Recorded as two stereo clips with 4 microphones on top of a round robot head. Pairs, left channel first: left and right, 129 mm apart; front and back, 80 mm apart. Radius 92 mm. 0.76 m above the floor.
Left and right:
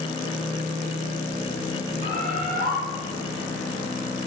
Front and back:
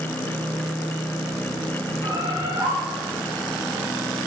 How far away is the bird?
About 0.5 m.